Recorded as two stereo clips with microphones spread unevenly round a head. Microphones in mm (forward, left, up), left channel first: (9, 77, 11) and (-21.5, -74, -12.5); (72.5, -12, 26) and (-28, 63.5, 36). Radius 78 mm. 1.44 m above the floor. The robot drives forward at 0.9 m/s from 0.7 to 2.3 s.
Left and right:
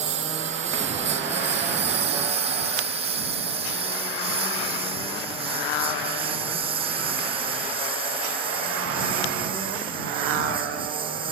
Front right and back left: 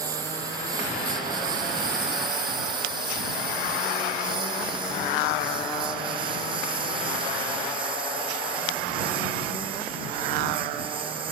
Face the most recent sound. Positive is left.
turn(degrees=-160)